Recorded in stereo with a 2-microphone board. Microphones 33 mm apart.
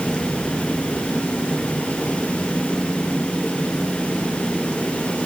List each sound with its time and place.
Only background noise.